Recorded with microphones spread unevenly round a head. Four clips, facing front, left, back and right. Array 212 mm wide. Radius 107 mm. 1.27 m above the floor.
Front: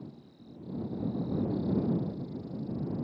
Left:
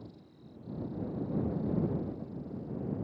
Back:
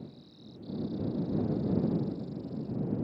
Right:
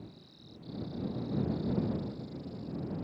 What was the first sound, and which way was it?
Only background noise.